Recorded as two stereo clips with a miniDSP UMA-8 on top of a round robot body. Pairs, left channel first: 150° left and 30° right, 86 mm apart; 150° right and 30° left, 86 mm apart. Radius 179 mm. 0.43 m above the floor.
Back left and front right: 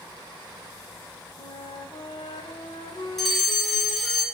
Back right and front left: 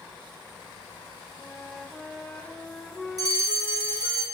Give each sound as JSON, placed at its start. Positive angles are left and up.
{"t": 1.4, "sound": "a flute", "azimuth_deg": 125, "distance_m": 1.3}
{"t": 3.2, "sound": "a fire alarm", "azimuth_deg": 65, "distance_m": 4.0}